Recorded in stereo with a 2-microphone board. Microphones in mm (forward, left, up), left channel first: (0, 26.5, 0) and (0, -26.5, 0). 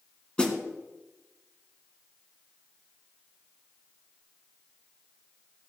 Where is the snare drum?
20° left (ahead or behind), 1.5 m.